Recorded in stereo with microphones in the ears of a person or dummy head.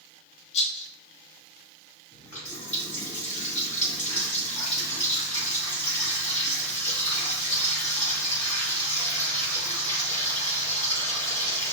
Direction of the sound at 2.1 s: 15° left (ahead or behind).